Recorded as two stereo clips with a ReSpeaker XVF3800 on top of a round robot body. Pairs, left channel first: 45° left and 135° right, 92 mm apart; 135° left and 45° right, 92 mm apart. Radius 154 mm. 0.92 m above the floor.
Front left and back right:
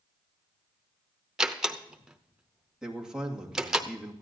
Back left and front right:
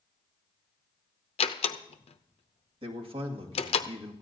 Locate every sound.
1.4 s a door slam: 140° left, 0.6 m
2.8 s a man speaking: 50° right, 2 m